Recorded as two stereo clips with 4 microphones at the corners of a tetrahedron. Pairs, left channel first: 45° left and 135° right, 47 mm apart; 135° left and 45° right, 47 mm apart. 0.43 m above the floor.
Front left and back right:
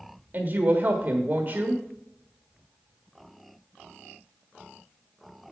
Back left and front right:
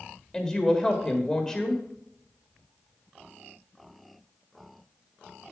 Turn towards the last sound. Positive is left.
turn(degrees=-155)